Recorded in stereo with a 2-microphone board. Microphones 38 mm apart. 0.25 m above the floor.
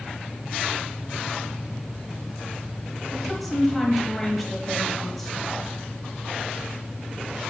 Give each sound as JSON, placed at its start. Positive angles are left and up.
{"t": 3.1, "sound": "a woman speaking", "side_deg": 5, "distance_m": 1.1}